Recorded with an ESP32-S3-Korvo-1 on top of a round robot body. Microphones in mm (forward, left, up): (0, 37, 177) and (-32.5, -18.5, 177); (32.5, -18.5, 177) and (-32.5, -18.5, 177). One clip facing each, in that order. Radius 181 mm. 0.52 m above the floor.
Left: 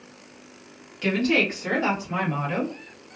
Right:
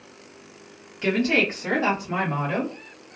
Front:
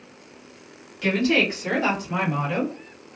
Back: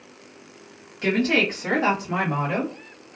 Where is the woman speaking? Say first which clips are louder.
Even, even; straight behind, 1.3 m; by 2.8 s 165° right, 2.0 m.